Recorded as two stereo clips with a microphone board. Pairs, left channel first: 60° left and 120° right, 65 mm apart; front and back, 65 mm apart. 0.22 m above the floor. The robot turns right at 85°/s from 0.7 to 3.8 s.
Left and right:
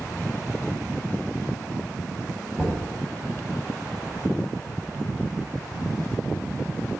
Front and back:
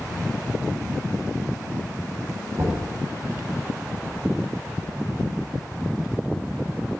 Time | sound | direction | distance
2.6 | knocking | 135° left | 4 m